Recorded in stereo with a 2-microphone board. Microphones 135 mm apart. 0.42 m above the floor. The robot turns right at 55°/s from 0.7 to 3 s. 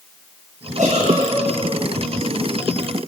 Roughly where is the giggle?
Right.